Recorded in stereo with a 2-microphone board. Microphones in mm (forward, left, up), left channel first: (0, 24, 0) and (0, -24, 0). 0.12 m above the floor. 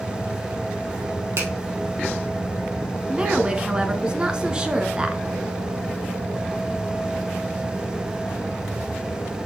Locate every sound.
1.4 s a finger snap: 65° right (ahead or behind), 3 m
3.1 s a woman speaking: 20° right (ahead or behind), 1.5 m